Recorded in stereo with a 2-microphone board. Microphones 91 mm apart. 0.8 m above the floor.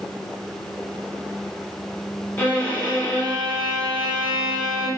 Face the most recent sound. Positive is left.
turn(degrees=25)  # may be behind; listen again after turning